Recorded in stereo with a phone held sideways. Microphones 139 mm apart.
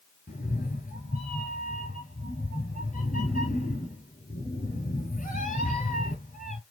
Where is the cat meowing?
75° left (ahead or behind), 2.5 m.